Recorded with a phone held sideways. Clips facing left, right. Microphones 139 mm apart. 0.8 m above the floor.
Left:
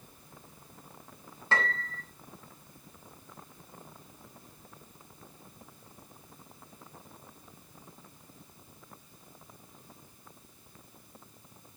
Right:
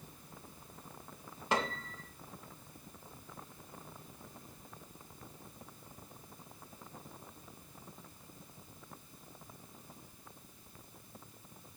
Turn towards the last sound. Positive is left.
turn(degrees=-15)  # may be behind; listen again after turning